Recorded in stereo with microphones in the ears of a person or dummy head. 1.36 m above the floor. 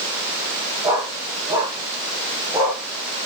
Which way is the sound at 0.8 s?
15° right (ahead or behind).